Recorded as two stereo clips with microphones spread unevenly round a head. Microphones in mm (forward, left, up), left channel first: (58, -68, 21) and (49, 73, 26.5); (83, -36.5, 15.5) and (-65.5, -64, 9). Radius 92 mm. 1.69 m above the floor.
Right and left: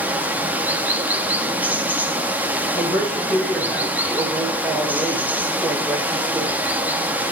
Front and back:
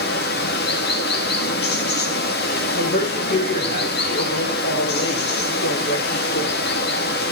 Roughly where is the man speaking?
Ahead.